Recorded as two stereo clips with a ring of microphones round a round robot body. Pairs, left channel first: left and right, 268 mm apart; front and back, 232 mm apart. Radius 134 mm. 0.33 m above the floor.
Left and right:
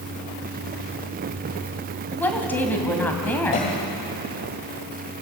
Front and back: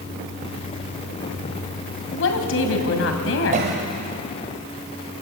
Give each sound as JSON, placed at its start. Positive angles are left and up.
{"t": 2.1, "sound": "a woman speaking", "azimuth_deg": 10, "distance_m": 2.5}
{"t": 3.5, "sound": "a cough", "azimuth_deg": 140, "distance_m": 1.8}